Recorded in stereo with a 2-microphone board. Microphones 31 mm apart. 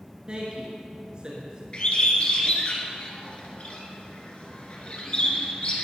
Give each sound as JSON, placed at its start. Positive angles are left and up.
{"t": 0.3, "sound": "a woman speaking", "side_deg": -30, "distance_m": 1.3}
{"t": 1.7, "sound": "a bird", "side_deg": 40, "distance_m": 1.7}